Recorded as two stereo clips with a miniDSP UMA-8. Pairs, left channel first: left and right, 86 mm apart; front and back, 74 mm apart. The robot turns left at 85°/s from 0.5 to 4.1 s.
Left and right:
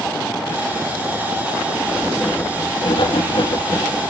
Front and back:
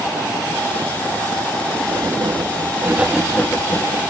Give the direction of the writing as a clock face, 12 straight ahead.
5 o'clock.